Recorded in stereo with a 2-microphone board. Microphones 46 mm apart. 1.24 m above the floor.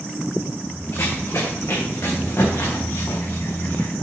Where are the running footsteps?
65° left (ahead or behind), 4 m; by 3.9 s 70° left (ahead or behind), 6 m.